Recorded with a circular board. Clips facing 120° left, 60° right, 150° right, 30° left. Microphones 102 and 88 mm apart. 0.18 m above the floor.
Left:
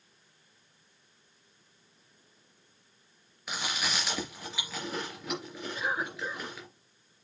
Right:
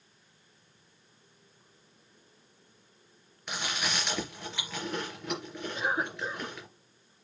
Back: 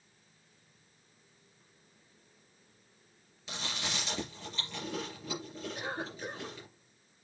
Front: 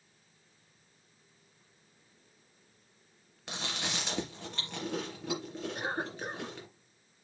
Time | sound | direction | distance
3.5 | chewing | 35° left | 3.5 m
5.8 | a cough | straight ahead | 3 m